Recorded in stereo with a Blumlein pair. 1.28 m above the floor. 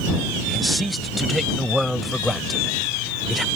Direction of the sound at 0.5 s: Straight ahead.